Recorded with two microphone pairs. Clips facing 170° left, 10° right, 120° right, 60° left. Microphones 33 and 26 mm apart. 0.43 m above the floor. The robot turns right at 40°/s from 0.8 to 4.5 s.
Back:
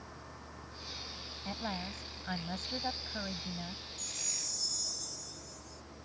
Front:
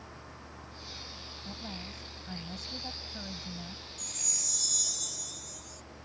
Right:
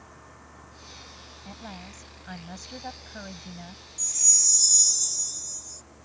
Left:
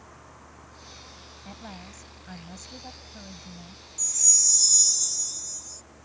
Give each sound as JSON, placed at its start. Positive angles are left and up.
{"t": 1.4, "sound": "a woman speaking", "azimuth_deg": 150}
{"t": 4.0, "sound": "a chime", "azimuth_deg": -45}